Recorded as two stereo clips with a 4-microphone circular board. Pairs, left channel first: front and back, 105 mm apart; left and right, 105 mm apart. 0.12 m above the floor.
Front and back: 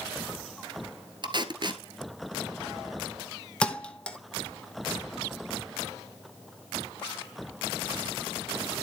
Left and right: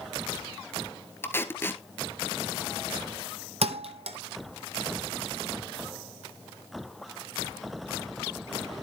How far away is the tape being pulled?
About 1.0 m.